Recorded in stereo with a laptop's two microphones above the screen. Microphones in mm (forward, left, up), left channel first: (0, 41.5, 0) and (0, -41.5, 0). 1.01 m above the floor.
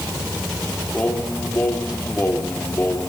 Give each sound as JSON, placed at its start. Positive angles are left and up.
{"t": 0.9, "sound": "singing", "side_deg": 25, "distance_m": 2.5}